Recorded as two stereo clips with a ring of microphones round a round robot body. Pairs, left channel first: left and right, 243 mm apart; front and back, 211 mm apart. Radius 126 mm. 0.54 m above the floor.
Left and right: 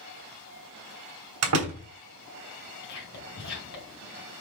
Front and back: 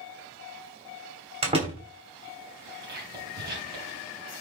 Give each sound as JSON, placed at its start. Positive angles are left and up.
{"t": 1.4, "sound": "a door slam", "azimuth_deg": -115, "distance_m": 3.0}
{"t": 2.8, "sound": "whispering", "azimuth_deg": 140, "distance_m": 3.5}